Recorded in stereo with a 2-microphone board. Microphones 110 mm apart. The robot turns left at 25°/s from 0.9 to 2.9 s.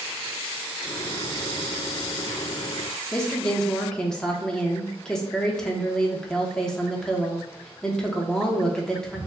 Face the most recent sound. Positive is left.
turn(degrees=5)  # may be behind; listen again after turning